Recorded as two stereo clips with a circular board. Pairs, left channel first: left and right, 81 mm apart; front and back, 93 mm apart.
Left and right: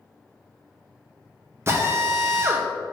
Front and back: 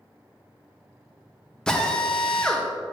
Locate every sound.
1.7 s a drill: 75° right, 0.7 m